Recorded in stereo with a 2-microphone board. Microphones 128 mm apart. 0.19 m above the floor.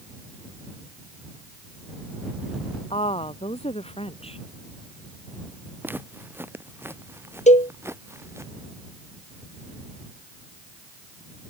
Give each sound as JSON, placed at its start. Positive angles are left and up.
{"t": 2.9, "sound": "a woman speaking", "side_deg": 50}
{"t": 5.8, "sound": "footsteps", "side_deg": -15}
{"t": 7.5, "sound": "a cowbell", "side_deg": 65}